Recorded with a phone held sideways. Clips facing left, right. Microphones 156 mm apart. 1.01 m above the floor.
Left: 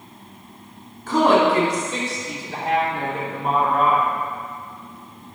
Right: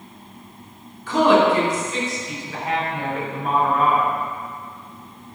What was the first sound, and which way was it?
A woman speaking, 50° left (ahead or behind).